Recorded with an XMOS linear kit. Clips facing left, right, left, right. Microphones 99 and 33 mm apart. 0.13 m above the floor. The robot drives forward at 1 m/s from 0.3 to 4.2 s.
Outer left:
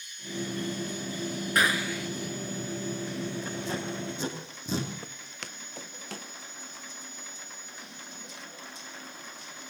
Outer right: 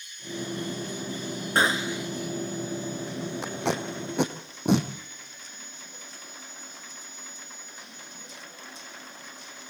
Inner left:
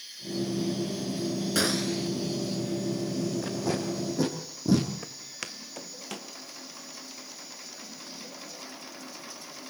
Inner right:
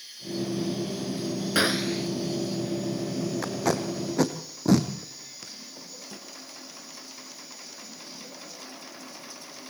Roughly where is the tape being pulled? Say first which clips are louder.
Outer right 4 dB, inner right 3 dB; right.